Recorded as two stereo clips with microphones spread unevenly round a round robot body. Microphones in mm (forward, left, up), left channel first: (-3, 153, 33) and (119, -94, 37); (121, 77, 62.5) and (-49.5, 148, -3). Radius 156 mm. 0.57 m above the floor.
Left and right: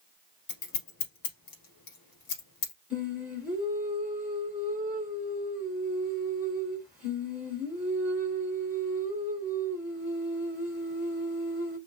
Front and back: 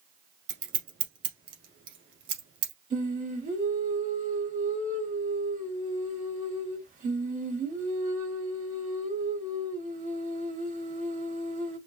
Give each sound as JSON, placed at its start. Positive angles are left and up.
{"t": 0.5, "sound": "scissors", "azimuth_deg": 175, "distance_m": 2.0}
{"t": 2.9, "sound": "singing", "azimuth_deg": -150, "distance_m": 1.8}